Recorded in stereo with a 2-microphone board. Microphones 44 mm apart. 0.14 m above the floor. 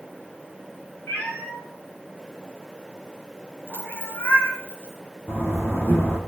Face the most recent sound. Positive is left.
turn(degrees=70)  # may be behind; listen again after turning